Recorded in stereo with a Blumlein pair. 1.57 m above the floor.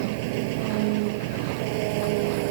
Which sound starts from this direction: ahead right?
An engine running, at 0.0 s.